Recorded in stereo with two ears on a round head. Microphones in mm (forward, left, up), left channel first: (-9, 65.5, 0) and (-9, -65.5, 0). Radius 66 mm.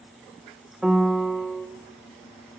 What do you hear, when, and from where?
0.8 s a piano: 5° right (ahead or behind), 0.9 m